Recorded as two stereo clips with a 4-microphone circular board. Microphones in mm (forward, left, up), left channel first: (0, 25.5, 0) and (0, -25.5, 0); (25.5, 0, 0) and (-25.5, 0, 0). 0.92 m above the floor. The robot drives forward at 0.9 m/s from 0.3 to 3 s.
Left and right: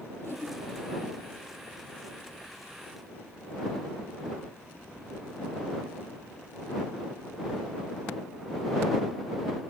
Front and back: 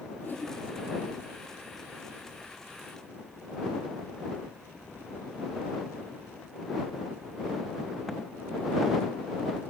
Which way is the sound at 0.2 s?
55° left.